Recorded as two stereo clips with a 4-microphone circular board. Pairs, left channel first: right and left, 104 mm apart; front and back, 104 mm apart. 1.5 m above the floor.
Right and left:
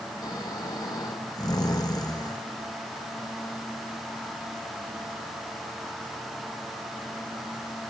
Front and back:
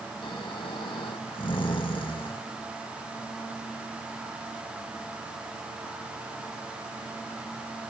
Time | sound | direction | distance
0.2 | snoring | 40° right | 1.5 m